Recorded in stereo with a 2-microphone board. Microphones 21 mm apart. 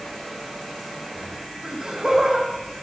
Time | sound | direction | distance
1.6 | laughter | 50° right (ahead or behind) | 4 m